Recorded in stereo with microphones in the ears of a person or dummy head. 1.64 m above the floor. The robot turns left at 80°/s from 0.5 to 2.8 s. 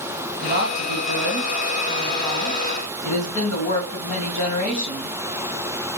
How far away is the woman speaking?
About 1.9 m.